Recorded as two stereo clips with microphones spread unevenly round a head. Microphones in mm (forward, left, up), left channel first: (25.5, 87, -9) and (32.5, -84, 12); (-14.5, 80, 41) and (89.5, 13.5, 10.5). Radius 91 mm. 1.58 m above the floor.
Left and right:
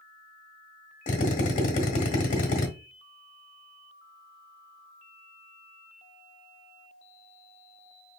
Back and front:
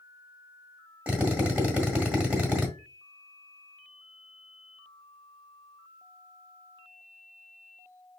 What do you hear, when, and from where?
1.1 s a drill: 60° left, 1.5 m